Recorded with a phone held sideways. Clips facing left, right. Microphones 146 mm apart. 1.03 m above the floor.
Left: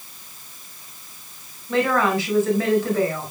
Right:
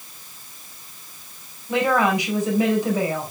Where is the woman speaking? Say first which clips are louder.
Even; 15° right (ahead or behind), 5.5 m.